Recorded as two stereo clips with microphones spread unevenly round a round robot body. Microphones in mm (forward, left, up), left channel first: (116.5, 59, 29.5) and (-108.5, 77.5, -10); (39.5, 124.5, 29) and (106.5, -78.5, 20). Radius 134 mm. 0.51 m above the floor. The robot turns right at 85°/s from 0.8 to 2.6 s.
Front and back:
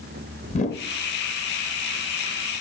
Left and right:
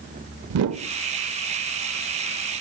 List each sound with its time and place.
0.5 s a whoosh: 70° right, 0.5 m; by 0.9 s 65° right, 0.5 m